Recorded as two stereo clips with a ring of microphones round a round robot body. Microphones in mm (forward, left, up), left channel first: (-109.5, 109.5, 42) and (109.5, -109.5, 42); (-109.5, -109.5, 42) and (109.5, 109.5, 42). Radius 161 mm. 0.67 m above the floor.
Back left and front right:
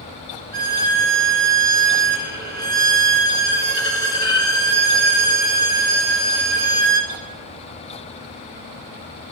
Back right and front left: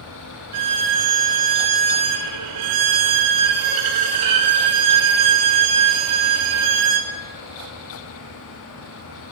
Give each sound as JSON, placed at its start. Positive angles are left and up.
{"t": 0.5, "sound": "a violin", "azimuth_deg": 20, "distance_m": 2.0}